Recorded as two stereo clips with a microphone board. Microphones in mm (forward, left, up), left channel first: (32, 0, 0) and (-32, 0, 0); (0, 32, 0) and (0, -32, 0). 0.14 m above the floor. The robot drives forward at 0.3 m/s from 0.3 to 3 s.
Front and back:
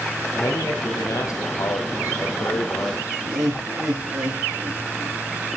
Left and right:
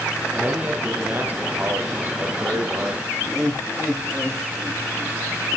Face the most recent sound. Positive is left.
turn(degrees=170)